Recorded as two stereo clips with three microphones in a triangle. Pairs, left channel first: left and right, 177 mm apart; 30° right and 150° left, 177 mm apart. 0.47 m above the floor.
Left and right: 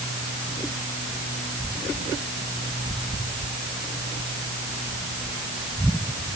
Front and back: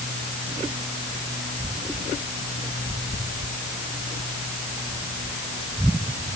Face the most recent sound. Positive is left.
No sound to turn to.